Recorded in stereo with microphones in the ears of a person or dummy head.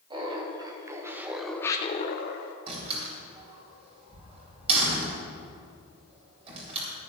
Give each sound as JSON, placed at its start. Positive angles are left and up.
{"t": 0.1, "sound": "laughter", "side_deg": -30, "distance_m": 2.5}
{"t": 2.7, "sound": "a door slam", "side_deg": -35, "distance_m": 4.0}